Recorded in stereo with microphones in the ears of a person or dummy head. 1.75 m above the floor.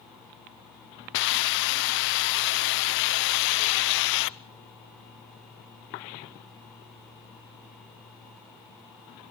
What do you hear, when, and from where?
1.1 s a hiss: 55° left (ahead or behind), 0.6 m